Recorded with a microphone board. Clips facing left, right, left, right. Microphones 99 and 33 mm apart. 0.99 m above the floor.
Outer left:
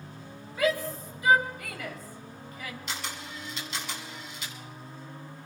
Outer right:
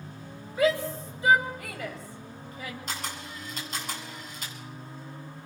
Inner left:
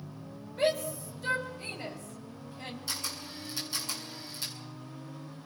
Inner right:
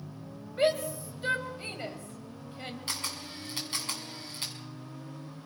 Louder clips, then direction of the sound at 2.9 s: Outer right 1 dB, inner right 1 dB; 45° right (ahead or behind).